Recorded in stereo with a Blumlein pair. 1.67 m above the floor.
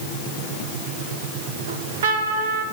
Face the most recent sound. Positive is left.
turn(degrees=-65)